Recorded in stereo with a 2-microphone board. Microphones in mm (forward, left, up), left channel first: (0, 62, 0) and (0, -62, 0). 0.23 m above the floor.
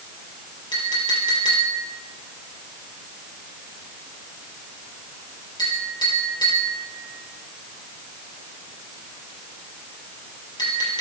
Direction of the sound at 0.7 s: 35° left (ahead or behind).